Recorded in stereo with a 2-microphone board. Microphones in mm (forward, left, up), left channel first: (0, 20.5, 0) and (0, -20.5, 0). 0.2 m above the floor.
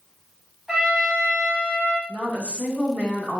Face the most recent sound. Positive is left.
turn(degrees=30)  # may be behind; listen again after turning